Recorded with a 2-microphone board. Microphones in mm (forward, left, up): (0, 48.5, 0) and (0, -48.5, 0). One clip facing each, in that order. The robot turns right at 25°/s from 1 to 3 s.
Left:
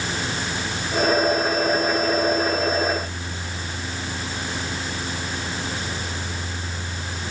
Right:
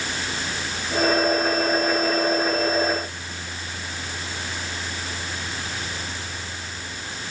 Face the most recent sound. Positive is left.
No sound to turn to.